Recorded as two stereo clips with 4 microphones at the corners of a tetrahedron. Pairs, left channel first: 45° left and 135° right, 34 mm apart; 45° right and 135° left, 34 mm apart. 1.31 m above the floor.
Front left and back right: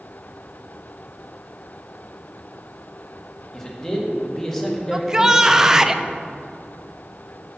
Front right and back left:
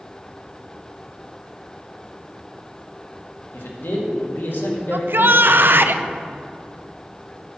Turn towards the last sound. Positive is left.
turn(degrees=150)